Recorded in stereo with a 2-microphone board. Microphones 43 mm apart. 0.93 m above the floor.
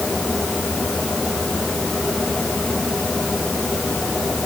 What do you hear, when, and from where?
Only background noise.